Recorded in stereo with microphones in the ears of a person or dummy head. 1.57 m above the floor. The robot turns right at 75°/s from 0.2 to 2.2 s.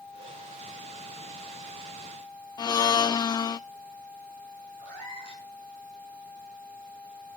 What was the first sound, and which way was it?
A blender, 20° left (ahead or behind).